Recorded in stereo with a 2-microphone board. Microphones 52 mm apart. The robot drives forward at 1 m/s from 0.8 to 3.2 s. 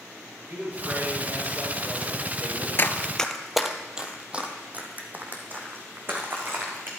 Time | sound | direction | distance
0.5 | a man speaking | 55° right (ahead or behind) | 6.5 m
2.8 | running footsteps | 45° left (ahead or behind) | 0.6 m